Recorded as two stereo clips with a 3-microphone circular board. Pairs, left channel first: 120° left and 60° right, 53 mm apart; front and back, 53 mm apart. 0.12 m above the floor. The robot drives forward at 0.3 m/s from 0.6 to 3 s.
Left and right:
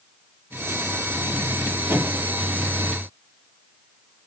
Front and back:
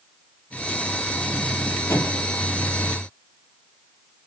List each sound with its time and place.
1.9 s a microwave: 25° right, 3.5 m